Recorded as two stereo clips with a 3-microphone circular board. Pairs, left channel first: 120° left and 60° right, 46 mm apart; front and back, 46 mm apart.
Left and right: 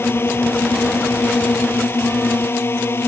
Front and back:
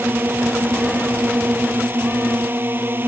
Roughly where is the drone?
Behind left.